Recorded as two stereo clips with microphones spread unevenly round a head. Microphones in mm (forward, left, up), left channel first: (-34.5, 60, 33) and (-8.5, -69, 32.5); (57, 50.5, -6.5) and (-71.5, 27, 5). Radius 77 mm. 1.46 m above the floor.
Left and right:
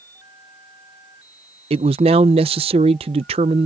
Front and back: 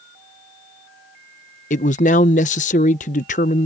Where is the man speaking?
30° right.